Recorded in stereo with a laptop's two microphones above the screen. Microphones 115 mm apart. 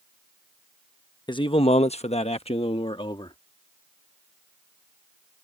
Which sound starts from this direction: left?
A man speaking, at 1.3 s.